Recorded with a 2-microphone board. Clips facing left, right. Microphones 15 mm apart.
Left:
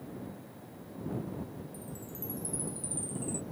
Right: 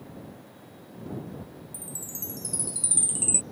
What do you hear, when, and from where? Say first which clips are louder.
1.7 s a chime: right 4 dB; 75° right (ahead or behind)